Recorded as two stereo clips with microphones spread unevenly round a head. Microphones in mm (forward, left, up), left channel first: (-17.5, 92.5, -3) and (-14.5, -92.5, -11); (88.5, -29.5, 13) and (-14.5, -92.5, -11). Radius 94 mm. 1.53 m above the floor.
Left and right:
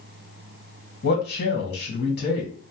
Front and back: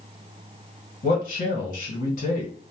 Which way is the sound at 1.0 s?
55° left.